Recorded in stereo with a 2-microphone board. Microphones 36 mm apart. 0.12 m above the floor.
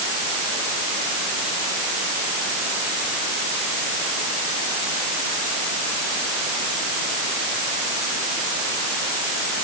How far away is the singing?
I don't hear singing.